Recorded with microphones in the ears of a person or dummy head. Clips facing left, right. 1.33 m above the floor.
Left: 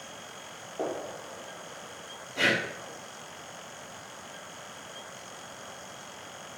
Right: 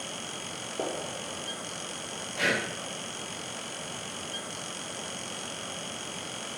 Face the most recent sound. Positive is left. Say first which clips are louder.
# left 1 dB
turn(degrees=60)  # may be behind; listen again after turning